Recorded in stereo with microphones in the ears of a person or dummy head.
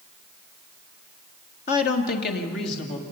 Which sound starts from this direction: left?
A woman speaking, at 1.7 s.